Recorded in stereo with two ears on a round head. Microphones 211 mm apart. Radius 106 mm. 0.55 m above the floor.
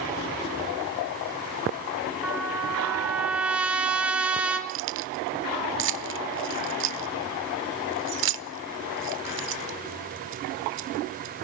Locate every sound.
2.2 s a trumpet: 5° right (ahead or behind), 2.5 m
4.7 s keys jangling: 50° right (ahead or behind), 1.2 m